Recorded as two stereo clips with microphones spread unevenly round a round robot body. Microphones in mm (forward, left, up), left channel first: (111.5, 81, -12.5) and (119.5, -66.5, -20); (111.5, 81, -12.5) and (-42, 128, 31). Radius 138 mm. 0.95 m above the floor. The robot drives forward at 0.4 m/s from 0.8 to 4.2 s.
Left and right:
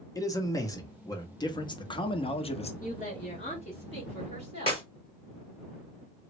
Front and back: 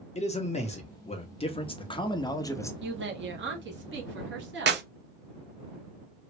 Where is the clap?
160° left, 0.7 m.